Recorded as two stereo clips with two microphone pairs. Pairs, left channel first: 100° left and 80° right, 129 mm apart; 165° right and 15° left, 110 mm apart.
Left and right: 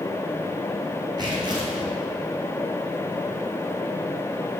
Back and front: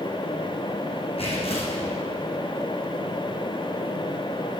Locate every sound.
1.2 s tearing paper: 135° right, 4.5 m